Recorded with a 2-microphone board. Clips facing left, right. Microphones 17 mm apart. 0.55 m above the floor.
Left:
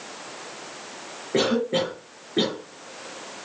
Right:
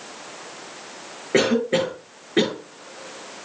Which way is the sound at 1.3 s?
45° right (ahead or behind).